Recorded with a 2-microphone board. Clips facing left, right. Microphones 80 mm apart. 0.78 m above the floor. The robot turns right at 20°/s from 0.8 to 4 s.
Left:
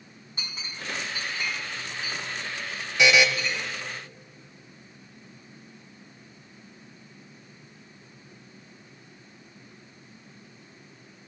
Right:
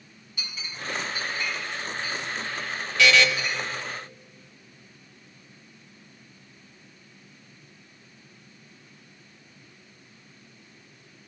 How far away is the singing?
No singing in this recording.